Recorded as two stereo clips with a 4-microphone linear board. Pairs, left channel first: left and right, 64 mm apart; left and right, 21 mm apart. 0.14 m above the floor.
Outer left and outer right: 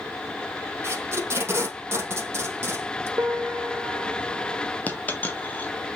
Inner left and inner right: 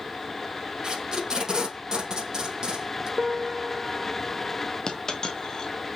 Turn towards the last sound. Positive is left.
turn(degrees=25)  # may be behind; listen again after turning